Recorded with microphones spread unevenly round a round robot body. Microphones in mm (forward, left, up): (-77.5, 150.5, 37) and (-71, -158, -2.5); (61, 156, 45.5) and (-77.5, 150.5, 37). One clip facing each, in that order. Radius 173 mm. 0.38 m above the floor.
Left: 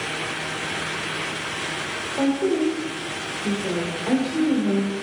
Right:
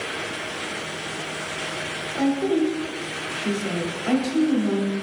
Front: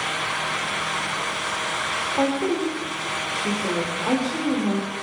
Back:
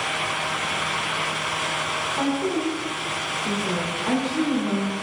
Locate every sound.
2.1 s a woman speaking: 20° right, 1.1 m